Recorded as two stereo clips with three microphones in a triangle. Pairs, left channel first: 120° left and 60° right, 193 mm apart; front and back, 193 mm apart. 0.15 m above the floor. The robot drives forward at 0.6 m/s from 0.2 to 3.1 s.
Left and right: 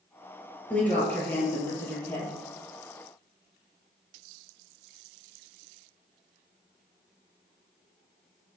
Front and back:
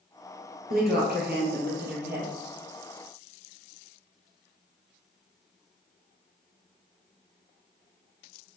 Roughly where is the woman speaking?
Behind.